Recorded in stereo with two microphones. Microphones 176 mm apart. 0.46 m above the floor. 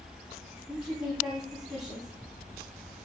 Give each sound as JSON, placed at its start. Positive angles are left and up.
{"t": 0.7, "sound": "a woman speaking", "side_deg": -5, "distance_m": 3.0}